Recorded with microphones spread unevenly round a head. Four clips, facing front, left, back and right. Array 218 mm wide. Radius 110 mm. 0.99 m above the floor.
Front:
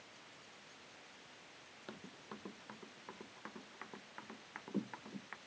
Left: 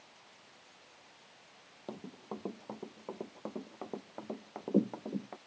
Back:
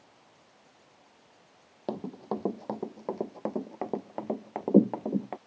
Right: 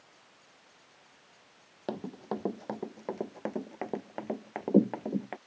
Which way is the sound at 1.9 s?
155° right.